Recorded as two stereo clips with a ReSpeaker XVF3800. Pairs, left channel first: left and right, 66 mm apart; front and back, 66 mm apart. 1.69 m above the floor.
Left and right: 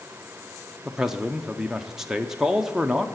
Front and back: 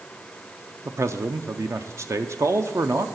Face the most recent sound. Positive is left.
turn(degrees=-170)